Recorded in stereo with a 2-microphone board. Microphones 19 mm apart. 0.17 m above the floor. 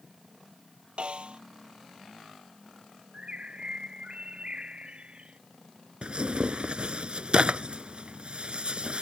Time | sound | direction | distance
1.0 | a snare drum | 60° right (ahead or behind) | ?
3.1 | a bird | 60° right (ahead or behind) | ?
6.0 | tearing paper | 60° right (ahead or behind) | ?